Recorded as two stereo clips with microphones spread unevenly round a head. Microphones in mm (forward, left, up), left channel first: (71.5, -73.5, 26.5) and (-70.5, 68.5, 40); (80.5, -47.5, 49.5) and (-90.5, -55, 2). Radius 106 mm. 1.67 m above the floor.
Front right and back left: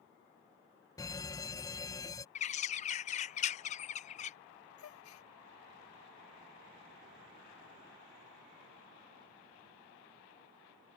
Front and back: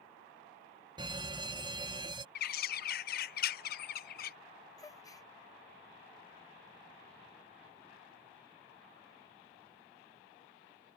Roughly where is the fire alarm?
Behind right.